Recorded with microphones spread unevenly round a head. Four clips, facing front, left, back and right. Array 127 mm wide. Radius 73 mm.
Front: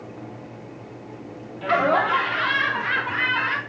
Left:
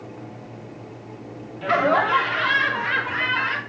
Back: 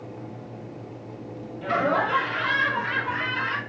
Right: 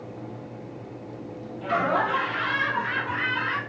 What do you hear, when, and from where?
1.6 s laughter: 45° left, 2.5 m; by 3.6 s 35° left, 4 m